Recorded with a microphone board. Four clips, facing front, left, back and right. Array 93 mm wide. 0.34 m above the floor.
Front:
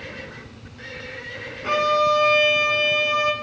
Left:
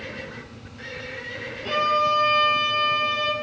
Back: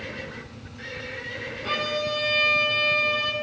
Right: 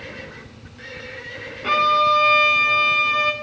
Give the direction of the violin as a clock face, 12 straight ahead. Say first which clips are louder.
Right 5 dB, front 9 dB; 2 o'clock.